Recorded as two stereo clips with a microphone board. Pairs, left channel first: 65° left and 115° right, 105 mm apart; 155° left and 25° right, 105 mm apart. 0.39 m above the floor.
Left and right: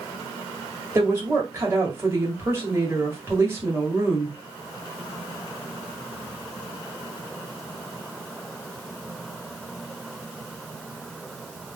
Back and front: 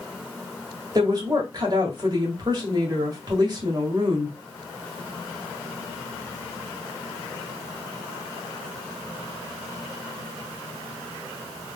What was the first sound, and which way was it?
A woman speaking, 55° right.